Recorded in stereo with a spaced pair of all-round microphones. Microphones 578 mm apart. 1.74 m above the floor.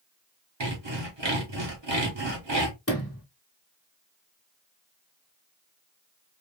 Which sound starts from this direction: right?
Sawing, at 0.6 s.